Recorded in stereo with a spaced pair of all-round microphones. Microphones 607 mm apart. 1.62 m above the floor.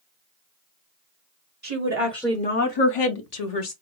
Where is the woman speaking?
30° right (ahead or behind), 1.0 m; by 3.7 s 90° left, 1.1 m.